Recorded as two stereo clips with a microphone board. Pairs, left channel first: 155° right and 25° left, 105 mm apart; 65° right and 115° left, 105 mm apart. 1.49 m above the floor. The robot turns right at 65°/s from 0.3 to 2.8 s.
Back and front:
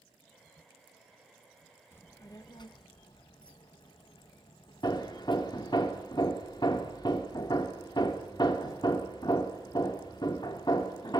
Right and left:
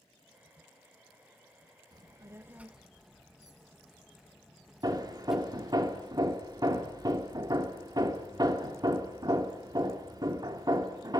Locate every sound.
1.9 s a child speaking: 140° left, 0.9 m; by 5.8 s 165° right, 0.9 m
4.8 s hammering: 160° left, 1.8 m